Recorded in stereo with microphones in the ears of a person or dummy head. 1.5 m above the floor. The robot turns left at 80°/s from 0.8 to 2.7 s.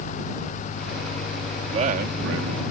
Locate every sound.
1.7 s a man speaking: 25° right; by 2.6 s 105° right